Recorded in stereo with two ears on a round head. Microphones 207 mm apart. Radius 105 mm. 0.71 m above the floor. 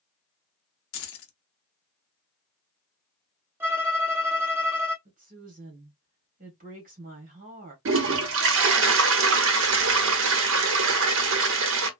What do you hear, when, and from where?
0.9 s keys jangling: 65° left (ahead or behind), 0.7 m
3.6 s a violin: 10° right (ahead or behind), 0.8 m
5.0 s a woman speaking: 40° right (ahead or behind), 1.4 m
7.8 s a toilet flushing: 60° right (ahead or behind), 0.7 m